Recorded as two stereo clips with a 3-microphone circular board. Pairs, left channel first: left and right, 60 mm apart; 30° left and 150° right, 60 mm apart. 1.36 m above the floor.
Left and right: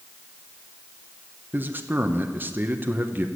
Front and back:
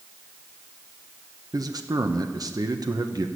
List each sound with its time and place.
1.5 s a man speaking: 150° right, 1.1 m